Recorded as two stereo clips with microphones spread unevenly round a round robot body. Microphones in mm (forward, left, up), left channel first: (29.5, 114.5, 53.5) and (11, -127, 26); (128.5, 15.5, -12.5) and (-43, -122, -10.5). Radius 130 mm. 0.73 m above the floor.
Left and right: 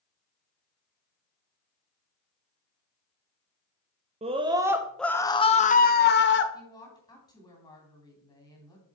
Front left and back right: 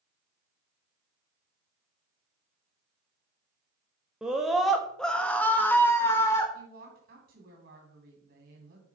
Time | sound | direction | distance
4.2 | a scream | 55° right | 1.0 m
6.5 | a woman speaking | 160° left | 2.5 m